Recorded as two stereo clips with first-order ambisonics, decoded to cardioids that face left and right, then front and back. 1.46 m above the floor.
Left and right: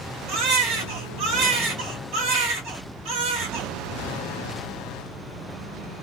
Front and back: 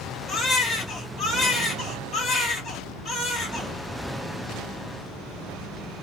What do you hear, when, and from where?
0.3 s a baby crying: 70° right, 1.4 m